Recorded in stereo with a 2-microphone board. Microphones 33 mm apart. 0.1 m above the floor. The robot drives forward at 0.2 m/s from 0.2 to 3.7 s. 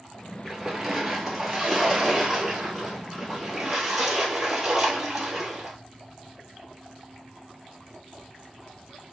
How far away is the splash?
About 1.2 m.